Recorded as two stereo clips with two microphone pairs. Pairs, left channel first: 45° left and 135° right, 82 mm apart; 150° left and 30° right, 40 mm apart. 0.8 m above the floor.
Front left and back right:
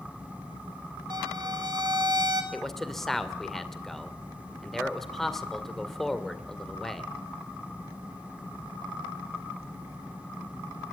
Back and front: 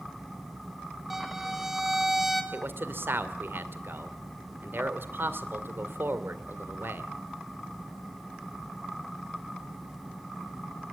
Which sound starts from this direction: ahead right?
A man speaking, at 2.5 s.